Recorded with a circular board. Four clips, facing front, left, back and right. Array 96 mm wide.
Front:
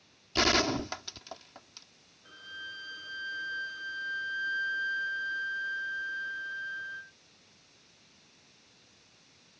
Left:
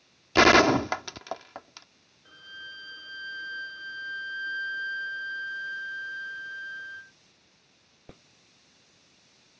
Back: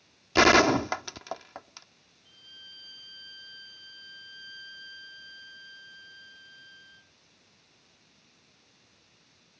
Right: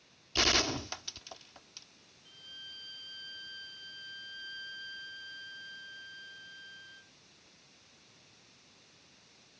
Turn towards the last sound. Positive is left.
turn(degrees=45)